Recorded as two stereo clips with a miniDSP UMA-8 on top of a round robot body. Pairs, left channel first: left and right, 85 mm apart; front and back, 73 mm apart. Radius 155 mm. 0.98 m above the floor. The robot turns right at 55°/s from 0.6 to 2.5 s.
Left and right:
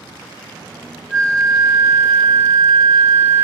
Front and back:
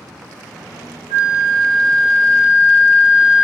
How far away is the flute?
About 1.9 m.